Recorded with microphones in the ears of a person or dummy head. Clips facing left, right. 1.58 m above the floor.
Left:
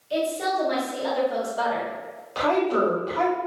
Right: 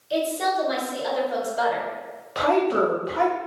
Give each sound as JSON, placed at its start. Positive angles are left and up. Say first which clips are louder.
{"t": 0.1, "sound": "a woman speaking", "louder": "right 1 dB", "side_deg": -10, "distance_m": 1.4}
{"t": 2.4, "sound": "a woman speaking", "louder": "right 1 dB", "side_deg": -15, "distance_m": 1.1}